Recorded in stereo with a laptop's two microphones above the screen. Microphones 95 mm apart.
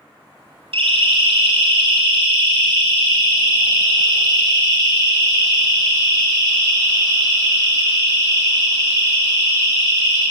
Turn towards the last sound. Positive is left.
turn(degrees=-30)  # may be behind; listen again after turning